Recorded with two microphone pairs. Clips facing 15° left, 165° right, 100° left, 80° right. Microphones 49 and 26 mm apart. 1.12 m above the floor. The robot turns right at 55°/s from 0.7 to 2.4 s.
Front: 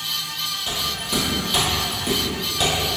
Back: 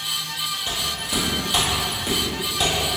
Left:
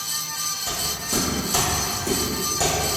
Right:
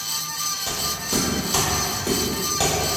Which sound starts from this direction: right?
Footsteps, at 0.7 s.